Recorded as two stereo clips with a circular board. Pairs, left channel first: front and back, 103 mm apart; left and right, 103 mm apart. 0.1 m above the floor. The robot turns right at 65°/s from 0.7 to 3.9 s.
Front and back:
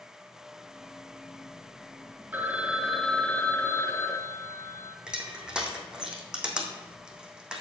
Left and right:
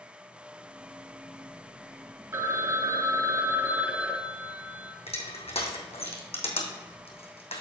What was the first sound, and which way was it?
A phone ringing, 130° right.